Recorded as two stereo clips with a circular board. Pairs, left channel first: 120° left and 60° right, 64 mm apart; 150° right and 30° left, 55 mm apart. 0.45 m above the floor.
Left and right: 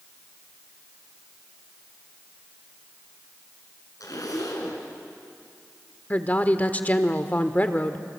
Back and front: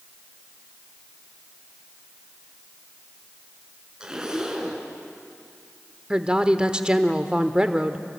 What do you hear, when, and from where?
4.0 s a zipper: 105° left, 4 m
6.1 s a woman speaking: 85° left, 1.3 m